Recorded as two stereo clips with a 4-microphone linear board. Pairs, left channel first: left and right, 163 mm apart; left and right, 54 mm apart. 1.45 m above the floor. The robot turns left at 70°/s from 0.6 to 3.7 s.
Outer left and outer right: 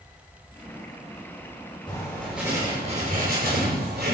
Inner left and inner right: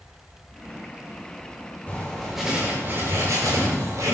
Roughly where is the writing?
Ahead left.